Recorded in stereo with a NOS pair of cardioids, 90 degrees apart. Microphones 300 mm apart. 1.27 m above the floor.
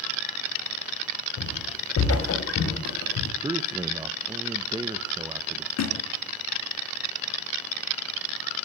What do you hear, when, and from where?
1.4 s footsteps: 50° left, 6 m; by 3.3 s 65° left, 4.5 m
3.4 s a man speaking: 15° right, 1.1 m
5.8 s a thud: 65° left, 3.5 m